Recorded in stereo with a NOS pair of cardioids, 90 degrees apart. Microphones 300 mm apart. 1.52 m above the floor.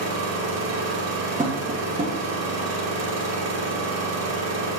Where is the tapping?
25° right, 2 m.